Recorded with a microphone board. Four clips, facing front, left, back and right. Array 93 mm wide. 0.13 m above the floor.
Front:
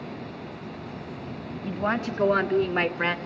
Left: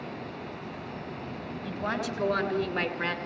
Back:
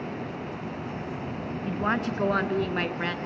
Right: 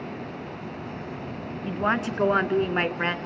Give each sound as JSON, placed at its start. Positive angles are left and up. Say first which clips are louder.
{"t": 1.6, "sound": "a woman speaking", "louder": "right 7 dB, even", "azimuth_deg": -100, "distance_m": 1.6}